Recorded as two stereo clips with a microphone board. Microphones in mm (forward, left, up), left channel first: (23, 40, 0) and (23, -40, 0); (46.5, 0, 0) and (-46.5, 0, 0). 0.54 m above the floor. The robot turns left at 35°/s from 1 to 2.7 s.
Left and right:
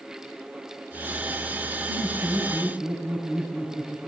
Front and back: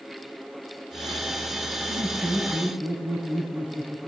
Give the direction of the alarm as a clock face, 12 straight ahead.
I don't hear an alarm.